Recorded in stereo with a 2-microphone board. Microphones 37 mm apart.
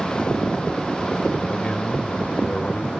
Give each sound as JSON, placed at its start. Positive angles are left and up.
{"t": 1.5, "sound": "a man speaking", "side_deg": 35}